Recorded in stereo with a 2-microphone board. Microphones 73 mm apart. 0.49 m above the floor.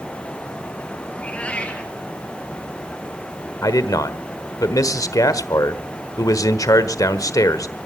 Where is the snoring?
I don't hear snoring.